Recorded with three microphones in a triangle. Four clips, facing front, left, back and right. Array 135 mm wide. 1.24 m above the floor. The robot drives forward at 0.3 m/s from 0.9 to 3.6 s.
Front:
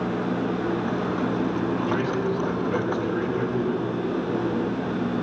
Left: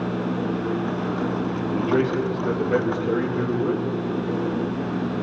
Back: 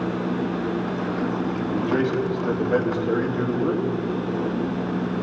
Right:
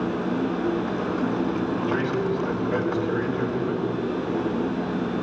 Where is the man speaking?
130° left, 1.9 m; by 3.9 s 140° left, 2.5 m.